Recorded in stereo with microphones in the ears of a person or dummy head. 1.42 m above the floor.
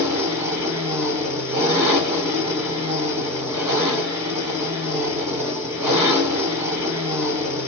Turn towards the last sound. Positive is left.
turn(degrees=-20)  # may be behind; listen again after turning